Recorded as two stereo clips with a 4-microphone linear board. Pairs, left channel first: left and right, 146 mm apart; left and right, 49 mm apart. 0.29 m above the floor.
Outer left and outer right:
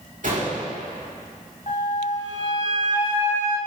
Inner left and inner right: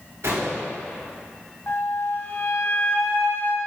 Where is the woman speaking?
No woman speaking in this recording.